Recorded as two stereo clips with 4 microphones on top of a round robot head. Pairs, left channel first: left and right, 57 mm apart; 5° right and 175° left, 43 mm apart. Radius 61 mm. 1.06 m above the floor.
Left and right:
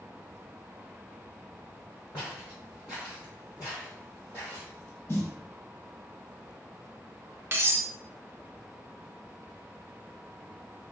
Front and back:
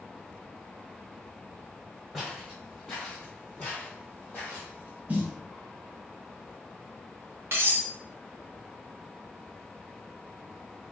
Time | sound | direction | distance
2.1 | footsteps | 80° left | 1.7 m
5.1 | a snare drum | 125° left | 0.6 m
7.5 | cutlery clinking | 140° right | 0.6 m